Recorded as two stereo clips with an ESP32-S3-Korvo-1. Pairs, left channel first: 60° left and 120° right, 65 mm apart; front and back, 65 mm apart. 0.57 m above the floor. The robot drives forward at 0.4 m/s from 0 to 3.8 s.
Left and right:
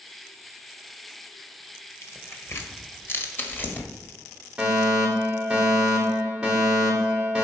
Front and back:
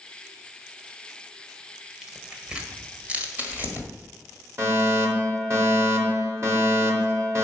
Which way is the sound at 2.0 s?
95° left.